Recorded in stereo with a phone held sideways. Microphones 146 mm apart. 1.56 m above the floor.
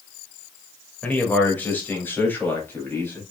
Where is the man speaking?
10° left (ahead or behind), 2.5 m; by 3.2 s 15° left (ahead or behind), 4.5 m.